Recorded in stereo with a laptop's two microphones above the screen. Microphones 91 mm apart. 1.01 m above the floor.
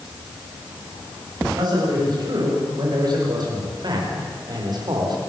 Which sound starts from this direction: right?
A man speaking, at 1.6 s.